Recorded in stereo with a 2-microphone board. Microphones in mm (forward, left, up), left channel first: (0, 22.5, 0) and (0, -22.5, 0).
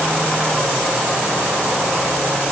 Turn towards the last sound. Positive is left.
No sound to turn to.